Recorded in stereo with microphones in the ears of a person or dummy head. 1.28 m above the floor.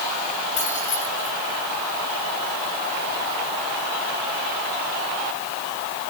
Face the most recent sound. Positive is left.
turn(degrees=40)  # may be behind; listen again after turning